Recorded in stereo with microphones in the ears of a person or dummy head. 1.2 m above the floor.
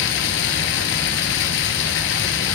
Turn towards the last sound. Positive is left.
turn(degrees=65)  # may be behind; listen again after turning